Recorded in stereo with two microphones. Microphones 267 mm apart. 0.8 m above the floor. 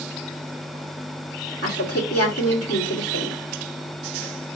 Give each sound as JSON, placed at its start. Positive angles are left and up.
{"t": 1.6, "sound": "a woman speaking", "side_deg": 60, "distance_m": 2.0}